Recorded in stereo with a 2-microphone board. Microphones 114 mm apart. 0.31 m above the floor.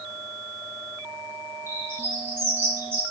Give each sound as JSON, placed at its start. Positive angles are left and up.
{"t": 1.7, "sound": "a bird", "side_deg": -20, "distance_m": 4.0}